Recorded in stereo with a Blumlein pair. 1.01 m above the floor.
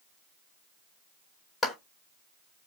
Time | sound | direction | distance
1.6 | a clap | 15° left | 2 m